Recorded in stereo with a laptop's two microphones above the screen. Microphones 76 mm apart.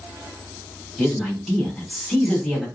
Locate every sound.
1.0 s a man speaking: 5° right (ahead or behind), 1.4 m